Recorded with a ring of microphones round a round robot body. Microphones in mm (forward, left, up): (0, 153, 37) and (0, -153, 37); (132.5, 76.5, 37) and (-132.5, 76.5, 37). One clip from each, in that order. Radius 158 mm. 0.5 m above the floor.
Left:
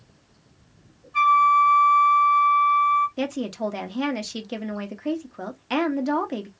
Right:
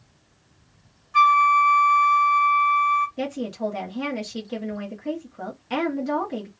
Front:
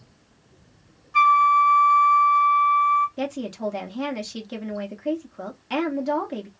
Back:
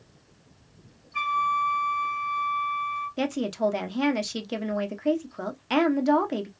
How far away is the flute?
About 0.6 m.